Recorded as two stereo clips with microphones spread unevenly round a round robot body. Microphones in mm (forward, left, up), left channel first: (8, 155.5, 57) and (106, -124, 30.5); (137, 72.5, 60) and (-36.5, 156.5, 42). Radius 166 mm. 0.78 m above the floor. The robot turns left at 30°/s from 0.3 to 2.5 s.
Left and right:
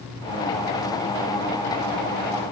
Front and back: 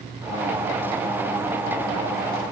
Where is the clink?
I don't hear a clink.